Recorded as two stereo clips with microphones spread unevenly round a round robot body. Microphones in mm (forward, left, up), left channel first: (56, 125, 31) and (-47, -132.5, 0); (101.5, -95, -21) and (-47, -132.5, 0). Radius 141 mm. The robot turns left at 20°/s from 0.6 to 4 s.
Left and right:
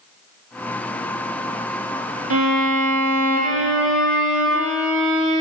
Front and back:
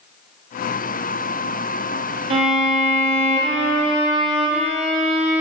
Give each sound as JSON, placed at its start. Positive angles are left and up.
{"t": 2.3, "sound": "a violin", "azimuth_deg": -145, "distance_m": 0.8}